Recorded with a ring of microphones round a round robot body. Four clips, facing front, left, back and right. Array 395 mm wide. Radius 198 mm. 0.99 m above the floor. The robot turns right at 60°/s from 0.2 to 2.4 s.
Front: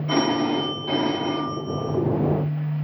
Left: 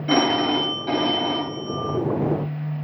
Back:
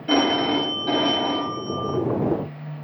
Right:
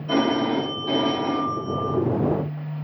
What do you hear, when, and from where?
0.1 s a phone ringing: 125° left, 1.2 m; by 2.0 s 125° right, 1.2 m